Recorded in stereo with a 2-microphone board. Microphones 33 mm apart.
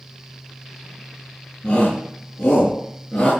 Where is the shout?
15° left (ahead or behind), 9 m.